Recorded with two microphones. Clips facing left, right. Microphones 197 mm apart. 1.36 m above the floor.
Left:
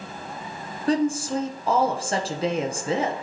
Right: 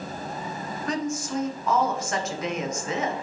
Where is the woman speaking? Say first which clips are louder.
Left 7 dB; 30° left (ahead or behind), 1.1 m.